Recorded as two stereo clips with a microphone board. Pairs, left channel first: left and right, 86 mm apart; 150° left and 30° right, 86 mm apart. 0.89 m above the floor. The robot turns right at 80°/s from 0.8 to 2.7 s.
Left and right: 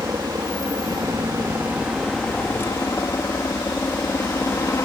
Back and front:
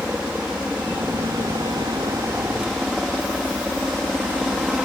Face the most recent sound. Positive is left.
turn(degrees=50)